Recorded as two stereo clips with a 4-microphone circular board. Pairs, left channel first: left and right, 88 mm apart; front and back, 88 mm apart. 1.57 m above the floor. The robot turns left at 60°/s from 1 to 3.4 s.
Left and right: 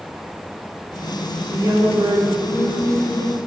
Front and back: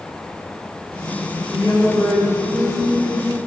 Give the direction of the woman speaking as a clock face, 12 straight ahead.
1 o'clock.